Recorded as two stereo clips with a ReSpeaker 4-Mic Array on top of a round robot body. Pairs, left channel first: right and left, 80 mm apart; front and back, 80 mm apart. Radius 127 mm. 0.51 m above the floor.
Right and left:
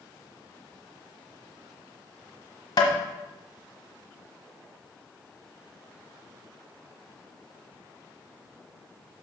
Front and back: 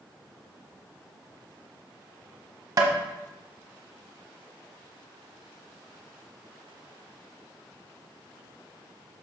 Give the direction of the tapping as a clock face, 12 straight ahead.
4 o'clock.